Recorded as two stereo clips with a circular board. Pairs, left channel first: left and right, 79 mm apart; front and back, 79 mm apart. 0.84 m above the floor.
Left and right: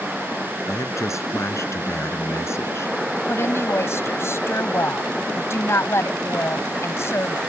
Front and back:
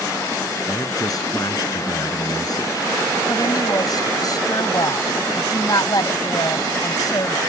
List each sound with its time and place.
0.7 s a man speaking: 40° left; by 3.2 s 35° left
3.3 s a woman speaking: 35° left